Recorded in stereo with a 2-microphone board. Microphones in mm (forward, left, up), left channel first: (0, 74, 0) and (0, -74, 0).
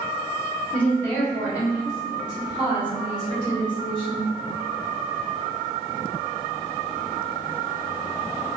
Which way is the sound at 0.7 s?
10° left (ahead or behind).